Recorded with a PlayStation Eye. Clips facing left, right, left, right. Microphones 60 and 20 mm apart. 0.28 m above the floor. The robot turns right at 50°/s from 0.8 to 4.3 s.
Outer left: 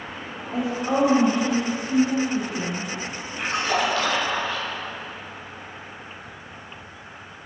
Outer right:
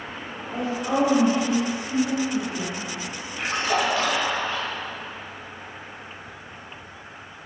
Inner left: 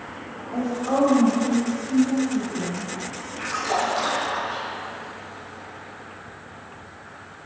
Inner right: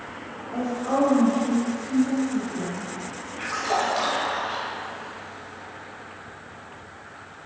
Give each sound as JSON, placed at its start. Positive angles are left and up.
{"t": 0.5, "sound": "a woman speaking", "side_deg": 15, "distance_m": 0.9}
{"t": 3.4, "sound": "a splash", "azimuth_deg": 160, "distance_m": 1.4}